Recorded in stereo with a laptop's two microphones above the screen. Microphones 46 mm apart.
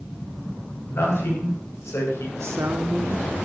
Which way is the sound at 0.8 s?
65° left (ahead or behind).